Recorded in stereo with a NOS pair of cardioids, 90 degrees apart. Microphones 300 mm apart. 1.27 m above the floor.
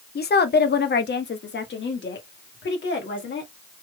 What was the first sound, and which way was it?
A woman speaking, 30° left.